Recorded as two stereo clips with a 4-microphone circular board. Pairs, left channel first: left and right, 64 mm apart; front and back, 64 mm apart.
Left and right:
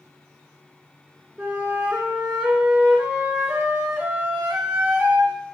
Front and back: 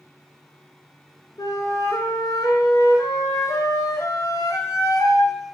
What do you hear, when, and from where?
1.4 s a flute: 20° right, 0.6 m